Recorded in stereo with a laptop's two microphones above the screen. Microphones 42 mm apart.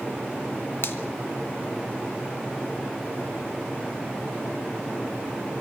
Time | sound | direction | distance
0.8 | a finger snap | 65° left (ahead or behind) | 1.3 m